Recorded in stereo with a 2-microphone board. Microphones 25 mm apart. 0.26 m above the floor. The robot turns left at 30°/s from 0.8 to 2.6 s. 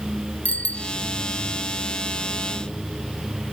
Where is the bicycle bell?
60° left (ahead or behind); by 0.9 s 55° left (ahead or behind).